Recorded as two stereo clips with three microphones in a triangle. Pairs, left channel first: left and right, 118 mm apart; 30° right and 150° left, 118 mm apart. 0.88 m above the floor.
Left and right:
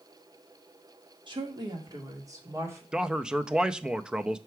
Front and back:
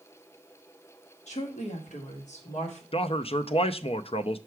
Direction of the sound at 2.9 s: 5° right.